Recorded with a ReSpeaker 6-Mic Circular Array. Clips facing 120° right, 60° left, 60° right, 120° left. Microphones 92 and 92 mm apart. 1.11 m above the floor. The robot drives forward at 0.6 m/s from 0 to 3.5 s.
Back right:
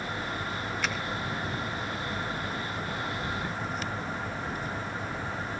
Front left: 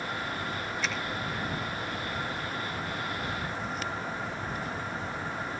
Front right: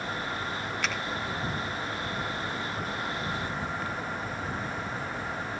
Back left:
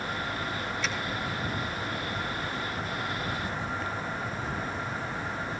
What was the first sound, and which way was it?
A finger snap, 85° right.